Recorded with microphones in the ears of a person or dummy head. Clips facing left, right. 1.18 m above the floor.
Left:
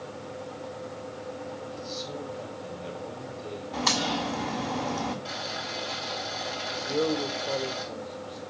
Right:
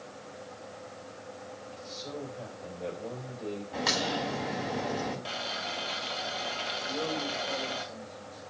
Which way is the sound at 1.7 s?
50° right (ahead or behind).